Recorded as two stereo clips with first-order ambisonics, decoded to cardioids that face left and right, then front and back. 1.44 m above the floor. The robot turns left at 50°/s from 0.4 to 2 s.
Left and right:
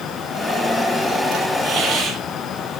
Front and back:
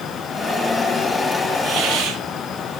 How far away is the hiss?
About 8 m.